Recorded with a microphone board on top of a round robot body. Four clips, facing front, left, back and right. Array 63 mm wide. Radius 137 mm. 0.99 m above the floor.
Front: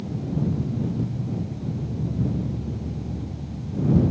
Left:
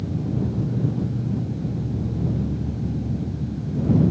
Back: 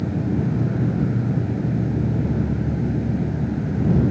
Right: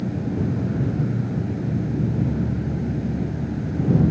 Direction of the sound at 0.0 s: 155° right.